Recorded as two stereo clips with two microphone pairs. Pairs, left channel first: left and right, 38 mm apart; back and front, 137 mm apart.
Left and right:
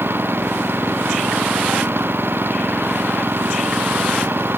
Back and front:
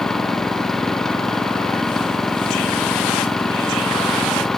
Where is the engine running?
90° right.